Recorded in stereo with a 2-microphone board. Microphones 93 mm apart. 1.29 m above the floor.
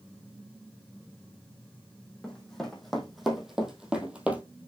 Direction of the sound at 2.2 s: 5° left (ahead or behind).